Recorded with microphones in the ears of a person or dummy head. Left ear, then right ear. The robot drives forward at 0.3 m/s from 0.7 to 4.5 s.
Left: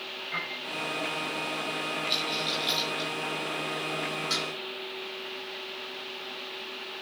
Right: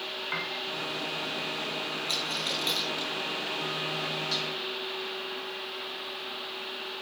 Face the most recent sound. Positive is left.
turn(degrees=75)  # may be behind; listen again after turning